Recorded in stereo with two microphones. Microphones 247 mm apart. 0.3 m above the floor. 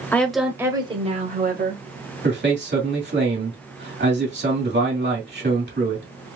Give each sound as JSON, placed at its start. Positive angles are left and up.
{"t": 0.1, "sound": "a woman speaking", "side_deg": 10, "distance_m": 1.0}
{"t": 2.2, "sound": "a man speaking", "side_deg": -45, "distance_m": 2.0}